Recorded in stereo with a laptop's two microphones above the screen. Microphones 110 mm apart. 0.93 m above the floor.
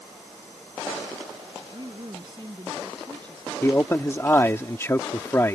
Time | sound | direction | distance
1.6 | a woman speaking | 40° right (ahead or behind) | ?
3.6 | a man speaking | 20° left (ahead or behind) | ?